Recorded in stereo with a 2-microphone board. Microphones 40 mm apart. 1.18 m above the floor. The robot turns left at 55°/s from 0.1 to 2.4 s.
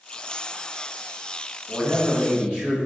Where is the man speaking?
155° right, 1.4 m; by 2.8 s 165° left, 1.4 m.